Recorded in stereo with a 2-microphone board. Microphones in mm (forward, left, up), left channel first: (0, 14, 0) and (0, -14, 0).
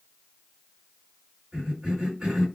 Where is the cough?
35° right (ahead or behind), 2 m.